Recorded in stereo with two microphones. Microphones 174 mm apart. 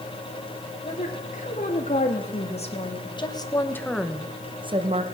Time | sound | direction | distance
0.8 | a woman speaking | 50° left (ahead or behind) | 3.5 m